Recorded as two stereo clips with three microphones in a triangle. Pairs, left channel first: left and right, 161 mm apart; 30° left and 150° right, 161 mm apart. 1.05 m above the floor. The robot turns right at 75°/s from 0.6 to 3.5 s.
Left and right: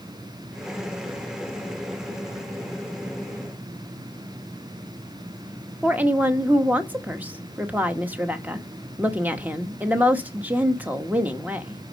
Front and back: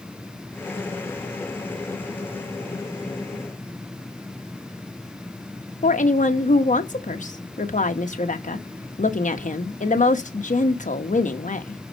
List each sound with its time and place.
5.8 s a woman speaking: 10° right, 1.2 m